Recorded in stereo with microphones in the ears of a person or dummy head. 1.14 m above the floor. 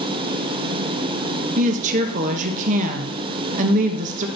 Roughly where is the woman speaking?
Right.